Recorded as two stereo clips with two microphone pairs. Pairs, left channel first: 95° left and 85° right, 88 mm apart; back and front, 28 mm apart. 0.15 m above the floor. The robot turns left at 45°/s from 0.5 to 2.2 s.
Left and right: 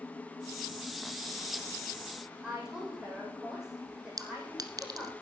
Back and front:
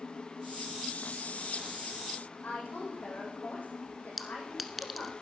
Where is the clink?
90° right, 1.0 m.